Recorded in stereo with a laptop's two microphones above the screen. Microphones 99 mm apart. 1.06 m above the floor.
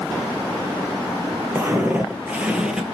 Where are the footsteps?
20° right (ahead or behind), 1.1 m; by 3.0 s 5° right (ahead or behind), 1.1 m.